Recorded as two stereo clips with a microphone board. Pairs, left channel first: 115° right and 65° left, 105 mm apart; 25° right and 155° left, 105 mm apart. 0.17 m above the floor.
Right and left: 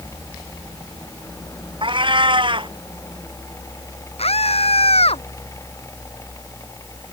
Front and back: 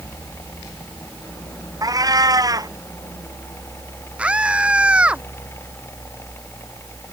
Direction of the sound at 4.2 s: 125° right.